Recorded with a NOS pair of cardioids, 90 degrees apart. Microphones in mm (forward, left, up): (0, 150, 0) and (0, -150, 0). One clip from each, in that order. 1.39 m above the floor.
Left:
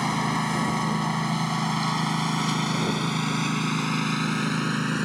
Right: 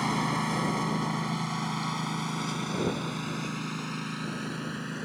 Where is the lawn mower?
20° left; by 5.1 s 70° left.